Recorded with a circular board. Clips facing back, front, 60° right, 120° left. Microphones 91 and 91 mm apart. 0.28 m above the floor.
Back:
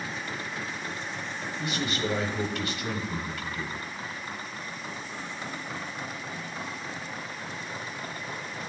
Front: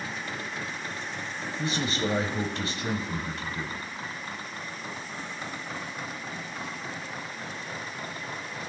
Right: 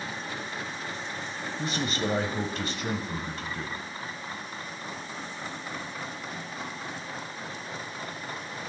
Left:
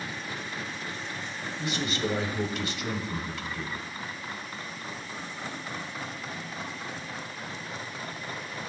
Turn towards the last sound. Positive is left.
turn(degrees=-40)